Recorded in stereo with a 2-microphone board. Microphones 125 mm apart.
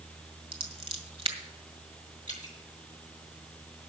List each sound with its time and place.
0.5 s scissors: 55° right (ahead or behind), 1.9 m
2.3 s dripping: 75° left (ahead or behind), 4 m